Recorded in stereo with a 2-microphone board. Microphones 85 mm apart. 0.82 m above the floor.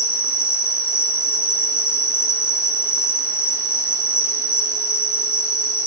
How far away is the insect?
About 2 m.